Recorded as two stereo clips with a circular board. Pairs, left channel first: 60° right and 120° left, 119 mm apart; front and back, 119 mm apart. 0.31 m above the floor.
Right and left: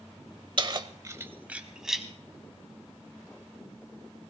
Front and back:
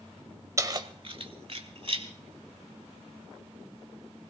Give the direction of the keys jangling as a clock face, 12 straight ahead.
8 o'clock.